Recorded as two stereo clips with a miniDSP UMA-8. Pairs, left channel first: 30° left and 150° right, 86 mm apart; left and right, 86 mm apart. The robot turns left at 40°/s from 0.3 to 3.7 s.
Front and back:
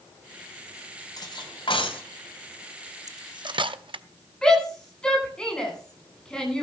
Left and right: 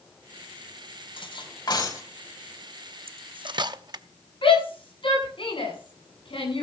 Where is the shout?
110° left, 9 m.